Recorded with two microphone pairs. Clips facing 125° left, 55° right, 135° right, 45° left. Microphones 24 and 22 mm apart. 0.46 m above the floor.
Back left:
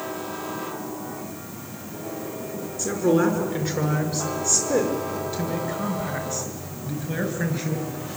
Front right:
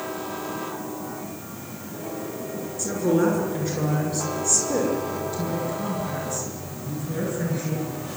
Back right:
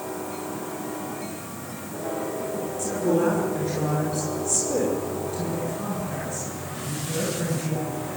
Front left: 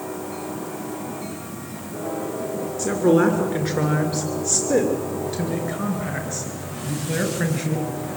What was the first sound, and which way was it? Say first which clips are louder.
A woman speaking: back left 1 dB, front left 6 dB; 55° left.